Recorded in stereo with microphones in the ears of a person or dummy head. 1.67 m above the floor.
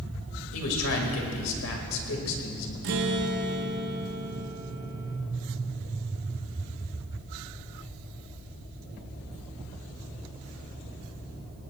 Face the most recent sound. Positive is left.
turn(degrees=-50)  # may be behind; listen again after turning